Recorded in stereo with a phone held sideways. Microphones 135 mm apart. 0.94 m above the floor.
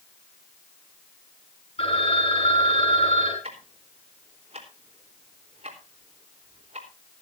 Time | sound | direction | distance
1.8 | a phone ringing | 45° left (ahead or behind) | 5.5 m
3.4 | ticking | 45° right (ahead or behind) | 3.5 m